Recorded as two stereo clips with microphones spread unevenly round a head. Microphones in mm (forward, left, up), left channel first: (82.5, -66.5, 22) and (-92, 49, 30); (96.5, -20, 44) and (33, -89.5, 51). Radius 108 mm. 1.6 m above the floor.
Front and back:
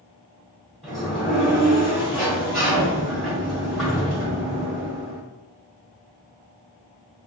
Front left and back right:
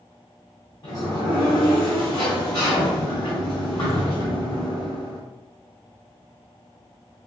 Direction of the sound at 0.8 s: 55° left.